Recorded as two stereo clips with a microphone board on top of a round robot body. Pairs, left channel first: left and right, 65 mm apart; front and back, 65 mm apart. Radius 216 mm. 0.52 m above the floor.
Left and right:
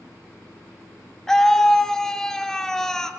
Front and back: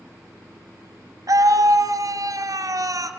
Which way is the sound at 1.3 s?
170° left.